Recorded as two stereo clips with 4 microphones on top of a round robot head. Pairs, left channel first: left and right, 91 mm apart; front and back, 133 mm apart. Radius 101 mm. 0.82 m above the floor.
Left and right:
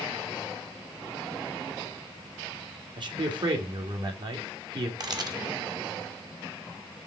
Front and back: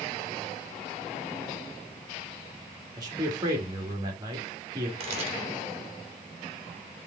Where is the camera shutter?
135° right, 1.5 m.